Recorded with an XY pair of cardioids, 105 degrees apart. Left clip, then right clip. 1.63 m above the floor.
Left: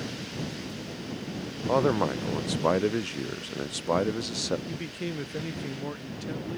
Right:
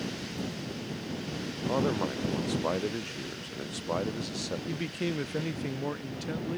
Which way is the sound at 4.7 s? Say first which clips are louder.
Right 2 dB; 15° right.